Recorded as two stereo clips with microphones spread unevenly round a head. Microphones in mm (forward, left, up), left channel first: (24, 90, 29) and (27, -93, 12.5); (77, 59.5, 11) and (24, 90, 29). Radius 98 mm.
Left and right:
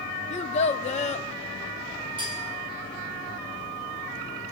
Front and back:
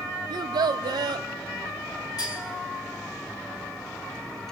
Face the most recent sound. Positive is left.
turn(degrees=-25)